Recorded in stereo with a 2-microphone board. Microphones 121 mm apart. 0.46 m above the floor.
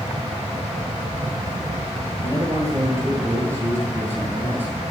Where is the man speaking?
30° right (ahead or behind), 10 m; by 4.8 s 15° right (ahead or behind), 10.5 m.